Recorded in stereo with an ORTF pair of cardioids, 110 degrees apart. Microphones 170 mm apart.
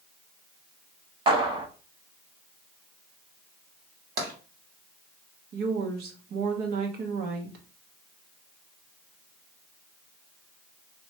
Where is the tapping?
65° right, 1.9 m.